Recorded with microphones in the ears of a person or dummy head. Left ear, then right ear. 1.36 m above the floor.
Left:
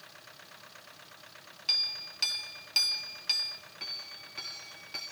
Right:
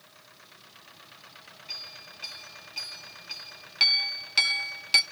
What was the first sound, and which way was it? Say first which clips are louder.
A clink: left 10 dB; 60° left (ahead or behind).